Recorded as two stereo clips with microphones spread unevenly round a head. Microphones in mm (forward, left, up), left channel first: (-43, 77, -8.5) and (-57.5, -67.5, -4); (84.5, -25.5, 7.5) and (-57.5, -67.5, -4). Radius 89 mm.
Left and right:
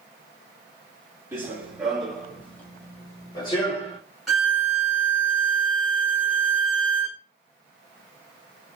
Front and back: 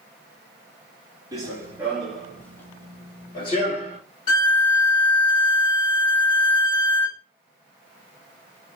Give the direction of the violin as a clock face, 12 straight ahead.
12 o'clock.